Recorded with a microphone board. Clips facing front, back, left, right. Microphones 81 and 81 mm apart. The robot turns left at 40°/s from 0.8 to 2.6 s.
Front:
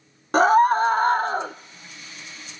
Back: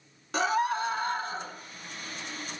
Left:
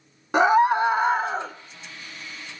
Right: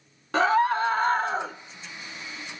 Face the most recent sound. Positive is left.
turn(degrees=-50)